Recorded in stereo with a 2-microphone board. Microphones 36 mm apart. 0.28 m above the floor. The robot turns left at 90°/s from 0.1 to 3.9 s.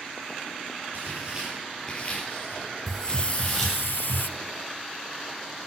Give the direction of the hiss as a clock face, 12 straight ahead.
6 o'clock.